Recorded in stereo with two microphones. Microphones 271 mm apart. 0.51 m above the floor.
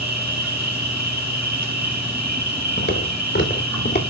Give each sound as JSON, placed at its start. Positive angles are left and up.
{"t": 0.0, "sound": "an insect", "side_deg": -85, "distance_m": 3.5}
{"t": 2.8, "sound": "footsteps", "side_deg": 45, "distance_m": 3.5}